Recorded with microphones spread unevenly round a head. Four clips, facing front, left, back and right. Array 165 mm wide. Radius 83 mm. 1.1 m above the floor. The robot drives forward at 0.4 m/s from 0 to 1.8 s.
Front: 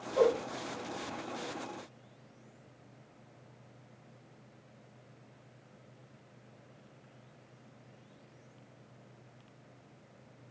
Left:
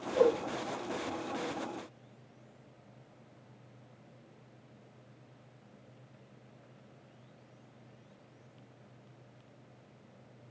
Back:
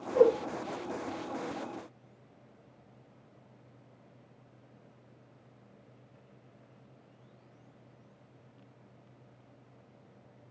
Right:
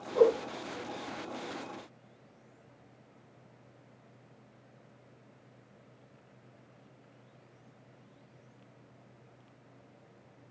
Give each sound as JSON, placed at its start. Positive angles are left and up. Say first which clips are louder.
{"t": 0.1, "sound": "a whoosh", "louder": "right 3 dB, back 4 dB", "azimuth_deg": -170, "distance_m": 1.3}